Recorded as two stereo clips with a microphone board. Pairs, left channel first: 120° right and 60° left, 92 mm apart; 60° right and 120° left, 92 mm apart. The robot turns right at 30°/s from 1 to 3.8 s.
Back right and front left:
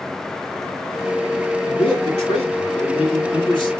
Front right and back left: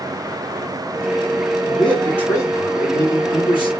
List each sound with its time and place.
1.6 s a man speaking: 145° right, 2.5 m; by 3.7 s 80° right, 2.5 m